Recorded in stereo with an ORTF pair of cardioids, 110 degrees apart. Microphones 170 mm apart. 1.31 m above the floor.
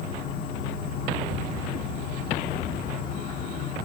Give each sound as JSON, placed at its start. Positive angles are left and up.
{"t": 0.0, "sound": "an insect", "azimuth_deg": 55, "distance_m": 1.1}